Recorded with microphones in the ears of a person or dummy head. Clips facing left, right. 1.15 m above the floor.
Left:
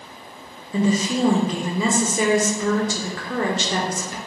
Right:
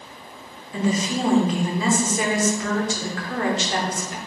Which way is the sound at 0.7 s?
75° left (ahead or behind).